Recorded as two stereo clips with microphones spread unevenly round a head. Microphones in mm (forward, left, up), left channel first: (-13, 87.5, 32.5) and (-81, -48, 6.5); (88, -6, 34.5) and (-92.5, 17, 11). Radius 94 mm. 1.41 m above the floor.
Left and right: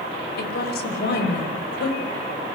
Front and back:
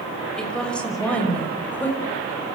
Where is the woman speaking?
80° left, 7 m; by 2.0 s 70° left, 7.5 m.